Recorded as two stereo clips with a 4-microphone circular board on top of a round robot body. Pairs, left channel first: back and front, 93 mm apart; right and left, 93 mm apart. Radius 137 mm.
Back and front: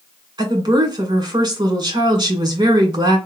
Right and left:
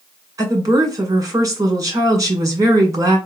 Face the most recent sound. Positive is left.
turn(degrees=35)